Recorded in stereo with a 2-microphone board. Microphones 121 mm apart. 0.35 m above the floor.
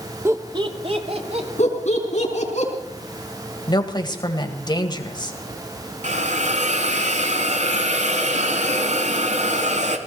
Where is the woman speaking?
35° left (ahead or behind), 1.8 m.